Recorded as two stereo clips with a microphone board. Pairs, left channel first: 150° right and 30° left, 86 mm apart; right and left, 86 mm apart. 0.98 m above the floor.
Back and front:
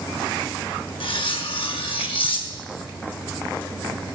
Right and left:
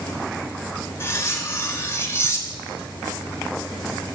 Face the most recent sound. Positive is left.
turn(degrees=-150)